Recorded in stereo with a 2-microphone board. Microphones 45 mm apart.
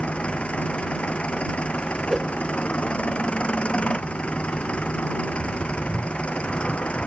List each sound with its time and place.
0.0 s an engine running: 30° left (ahead or behind)
2.1 s a whoosh: 5° right (ahead or behind)